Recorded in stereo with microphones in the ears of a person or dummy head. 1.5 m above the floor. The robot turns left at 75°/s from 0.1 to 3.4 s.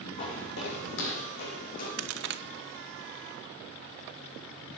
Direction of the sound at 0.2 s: 40° left (ahead or behind).